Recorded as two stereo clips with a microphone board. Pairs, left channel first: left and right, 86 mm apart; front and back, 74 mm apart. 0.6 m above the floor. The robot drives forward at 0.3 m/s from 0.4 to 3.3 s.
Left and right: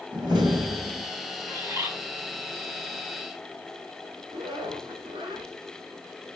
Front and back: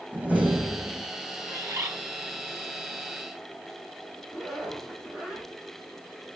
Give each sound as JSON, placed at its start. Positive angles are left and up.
{"t": 0.1, "sound": "a door slam", "azimuth_deg": -115, "distance_m": 2.5}
{"t": 1.5, "sound": "a bird", "azimuth_deg": -140, "distance_m": 2.0}
{"t": 4.3, "sound": "a zipper", "azimuth_deg": -95, "distance_m": 3.5}